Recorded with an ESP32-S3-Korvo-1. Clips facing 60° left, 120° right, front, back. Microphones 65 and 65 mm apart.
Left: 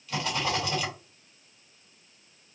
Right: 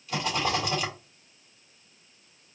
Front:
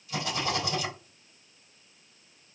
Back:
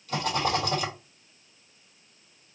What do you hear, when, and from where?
0.1 s a rattle: 155° left, 3 m